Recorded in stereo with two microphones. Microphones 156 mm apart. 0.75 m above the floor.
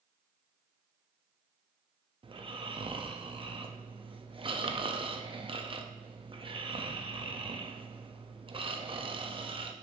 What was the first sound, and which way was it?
Snoring, 35° right (ahead or behind).